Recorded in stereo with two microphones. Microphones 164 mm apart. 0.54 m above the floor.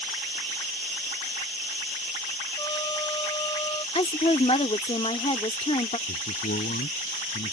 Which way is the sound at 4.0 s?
40° left (ahead or behind).